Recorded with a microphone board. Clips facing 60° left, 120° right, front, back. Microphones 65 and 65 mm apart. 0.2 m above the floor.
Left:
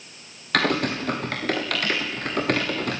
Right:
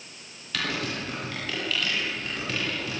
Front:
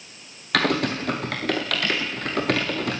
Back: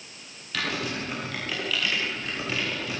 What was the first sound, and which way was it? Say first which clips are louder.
Typing on a keyboard: left 8 dB, front 8 dB; 25° left.